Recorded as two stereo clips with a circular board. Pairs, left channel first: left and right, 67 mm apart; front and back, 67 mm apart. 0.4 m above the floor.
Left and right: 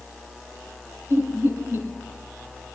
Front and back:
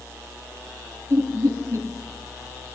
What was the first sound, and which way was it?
Laughter, 145° right.